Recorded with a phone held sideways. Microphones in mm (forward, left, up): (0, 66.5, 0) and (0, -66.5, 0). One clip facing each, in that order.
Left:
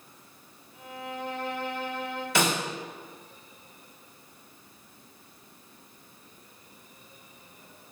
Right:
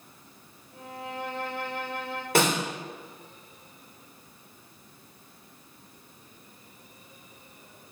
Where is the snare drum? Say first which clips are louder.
Right 3 dB; 55° right (ahead or behind), 2.5 m.